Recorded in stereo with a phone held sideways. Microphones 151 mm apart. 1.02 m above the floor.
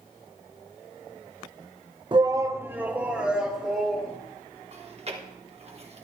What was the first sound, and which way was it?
A shout, 35° right (ahead or behind).